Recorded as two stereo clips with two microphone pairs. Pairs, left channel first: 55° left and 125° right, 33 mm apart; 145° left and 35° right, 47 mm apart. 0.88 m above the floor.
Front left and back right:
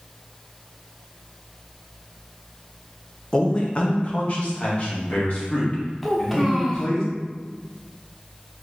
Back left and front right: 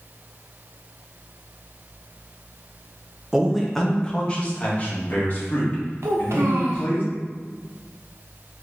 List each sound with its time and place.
3.3 s a man speaking: 25° left, 0.7 m; by 7.0 s 100° left, 2.5 m
6.0 s a child speaking: 35° right, 1.0 m